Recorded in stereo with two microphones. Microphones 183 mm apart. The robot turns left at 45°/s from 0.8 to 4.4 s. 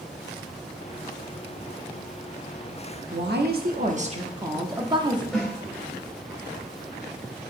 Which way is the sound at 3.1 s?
95° right.